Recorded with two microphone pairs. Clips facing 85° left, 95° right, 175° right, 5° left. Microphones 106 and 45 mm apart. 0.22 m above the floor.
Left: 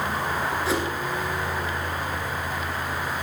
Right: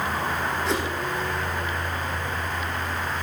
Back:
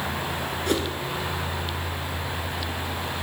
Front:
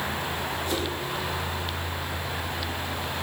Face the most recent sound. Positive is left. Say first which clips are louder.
# left 1 dB, back 6 dB
turn(degrees=170)